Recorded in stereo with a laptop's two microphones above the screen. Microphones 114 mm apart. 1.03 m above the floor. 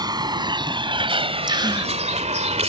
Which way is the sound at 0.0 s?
35° right (ahead or behind).